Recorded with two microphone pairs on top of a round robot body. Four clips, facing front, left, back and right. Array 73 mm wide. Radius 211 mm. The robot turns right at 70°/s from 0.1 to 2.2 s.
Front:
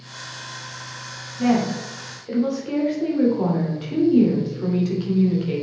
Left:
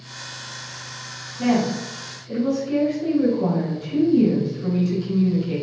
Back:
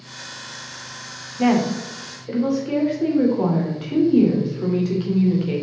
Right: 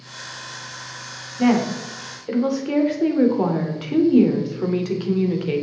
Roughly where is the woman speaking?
Behind right.